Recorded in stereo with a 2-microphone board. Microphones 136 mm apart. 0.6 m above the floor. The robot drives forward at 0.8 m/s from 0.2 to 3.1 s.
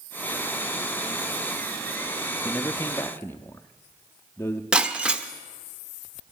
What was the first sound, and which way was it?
A man speaking, 20° left (ahead or behind).